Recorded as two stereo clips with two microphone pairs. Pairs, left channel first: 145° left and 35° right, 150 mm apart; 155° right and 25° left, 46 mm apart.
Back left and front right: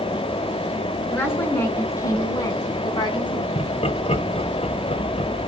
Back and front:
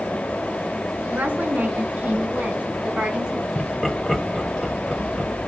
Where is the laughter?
115° left, 2.0 m.